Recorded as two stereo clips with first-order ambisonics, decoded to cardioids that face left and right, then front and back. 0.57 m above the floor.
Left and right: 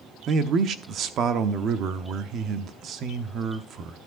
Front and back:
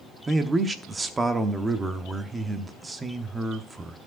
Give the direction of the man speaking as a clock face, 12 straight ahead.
4 o'clock.